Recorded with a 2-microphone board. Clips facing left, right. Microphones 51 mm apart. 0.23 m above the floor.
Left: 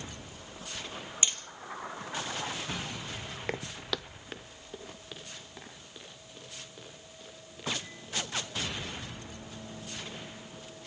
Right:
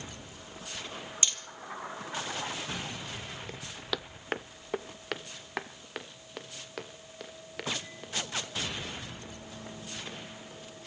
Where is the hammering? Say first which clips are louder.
Left 1 dB; 20° left (ahead or behind), 1.9 m.